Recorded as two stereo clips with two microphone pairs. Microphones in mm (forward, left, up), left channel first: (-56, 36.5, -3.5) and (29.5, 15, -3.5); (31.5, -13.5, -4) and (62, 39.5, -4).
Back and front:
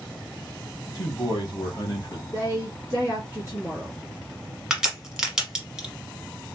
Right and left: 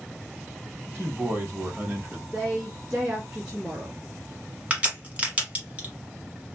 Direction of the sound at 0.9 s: 110° left.